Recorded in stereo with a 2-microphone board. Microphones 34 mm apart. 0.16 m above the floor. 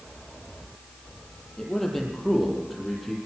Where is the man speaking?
5° left (ahead or behind), 6 m; by 3.2 s 5° right (ahead or behind), 6 m.